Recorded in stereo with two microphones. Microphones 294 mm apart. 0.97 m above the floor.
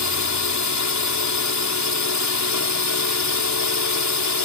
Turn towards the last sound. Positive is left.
turn(degrees=70)  # may be behind; listen again after turning